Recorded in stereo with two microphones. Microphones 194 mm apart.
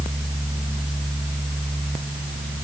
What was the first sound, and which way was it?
Only background noise.